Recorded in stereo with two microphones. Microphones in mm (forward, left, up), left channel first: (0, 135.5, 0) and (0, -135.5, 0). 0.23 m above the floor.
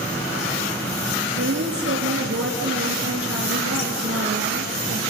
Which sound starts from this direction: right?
A woman speaking, at 1.4 s.